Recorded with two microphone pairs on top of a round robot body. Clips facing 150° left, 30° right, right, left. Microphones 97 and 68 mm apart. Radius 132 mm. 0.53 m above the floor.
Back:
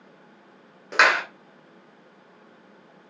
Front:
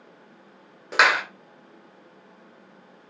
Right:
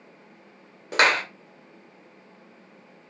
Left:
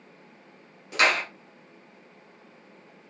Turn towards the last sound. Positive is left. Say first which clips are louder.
# even, right 3 dB
turn(degrees=-115)